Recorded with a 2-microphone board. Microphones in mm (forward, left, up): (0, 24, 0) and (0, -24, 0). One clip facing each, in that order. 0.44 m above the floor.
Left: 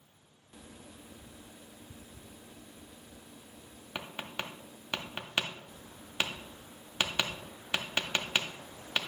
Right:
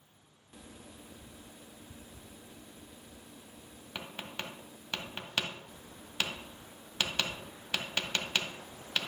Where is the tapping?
20° left (ahead or behind), 0.6 m.